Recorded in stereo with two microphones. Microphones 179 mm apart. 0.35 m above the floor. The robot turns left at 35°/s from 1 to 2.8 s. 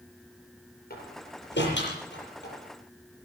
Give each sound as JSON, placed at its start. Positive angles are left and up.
{"t": 0.9, "sound": "a door slam", "side_deg": 60, "distance_m": 8.0}